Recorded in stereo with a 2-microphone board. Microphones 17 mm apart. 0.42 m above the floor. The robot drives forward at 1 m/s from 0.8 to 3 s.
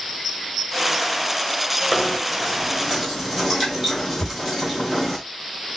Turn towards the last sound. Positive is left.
turn(degrees=70)  # may be behind; listen again after turning